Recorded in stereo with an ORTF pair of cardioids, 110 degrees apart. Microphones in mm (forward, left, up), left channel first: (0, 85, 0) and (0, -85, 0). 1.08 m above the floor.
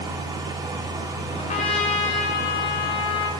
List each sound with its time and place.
0.0 s a fan: 25° right, 1.2 m
1.4 s a trumpet: 40° left, 3 m